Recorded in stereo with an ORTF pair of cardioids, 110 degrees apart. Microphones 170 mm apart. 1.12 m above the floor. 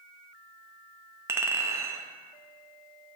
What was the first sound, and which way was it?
A clink, 15° right.